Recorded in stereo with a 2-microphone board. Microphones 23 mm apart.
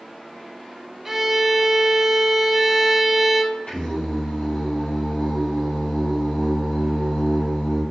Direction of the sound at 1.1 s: 10° right (ahead or behind).